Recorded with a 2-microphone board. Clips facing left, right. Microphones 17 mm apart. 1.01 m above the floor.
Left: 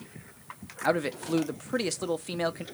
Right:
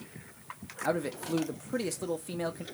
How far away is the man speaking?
About 0.6 m.